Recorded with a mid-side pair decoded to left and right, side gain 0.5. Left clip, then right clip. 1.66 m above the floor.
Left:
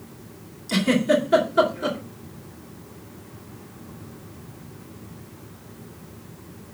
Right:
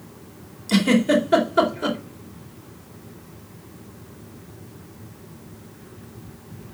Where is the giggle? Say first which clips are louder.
Right 1 dB; 30° right, 4 m.